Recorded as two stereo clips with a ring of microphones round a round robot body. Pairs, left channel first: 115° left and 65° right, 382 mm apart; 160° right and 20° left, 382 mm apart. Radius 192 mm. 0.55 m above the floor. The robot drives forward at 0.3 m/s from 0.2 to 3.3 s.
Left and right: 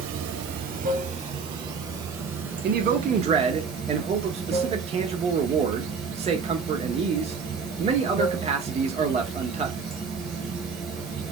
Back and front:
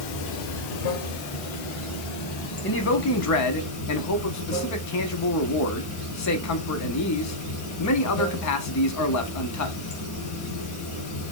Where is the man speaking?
115° right, 0.7 m; by 9.8 s 135° right, 0.8 m.